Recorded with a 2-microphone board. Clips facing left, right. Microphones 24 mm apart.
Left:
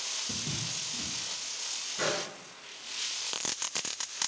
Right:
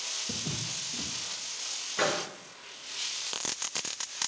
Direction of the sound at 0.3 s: 50° right (ahead or behind).